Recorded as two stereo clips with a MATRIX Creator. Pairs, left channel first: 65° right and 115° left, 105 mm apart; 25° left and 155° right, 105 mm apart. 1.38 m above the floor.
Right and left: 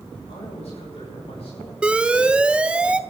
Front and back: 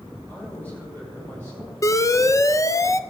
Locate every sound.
0.3 s a man speaking: 55° right, 9 m; by 1.7 s 50° right, 11 m
1.8 s an alarm: 40° left, 0.5 m